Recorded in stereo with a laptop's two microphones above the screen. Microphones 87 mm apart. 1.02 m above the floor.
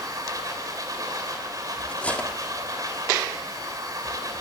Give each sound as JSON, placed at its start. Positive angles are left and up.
{"t": 0.0, "sound": "a machine running", "side_deg": -45, "distance_m": 2.5}
{"t": 1.9, "sound": "cutlery clinking", "side_deg": 15, "distance_m": 1.0}